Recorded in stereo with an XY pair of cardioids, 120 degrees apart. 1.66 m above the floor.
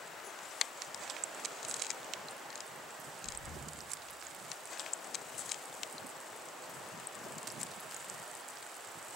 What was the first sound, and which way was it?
Breathing, 65° left.